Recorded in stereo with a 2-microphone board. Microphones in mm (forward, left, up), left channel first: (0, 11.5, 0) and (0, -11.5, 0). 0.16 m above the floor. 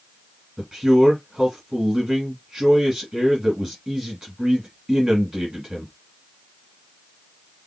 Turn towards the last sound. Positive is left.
turn(degrees=-15)  # may be behind; listen again after turning